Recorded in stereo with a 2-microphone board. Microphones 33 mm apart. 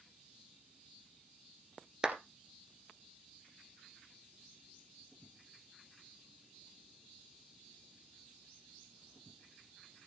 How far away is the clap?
About 2.0 m.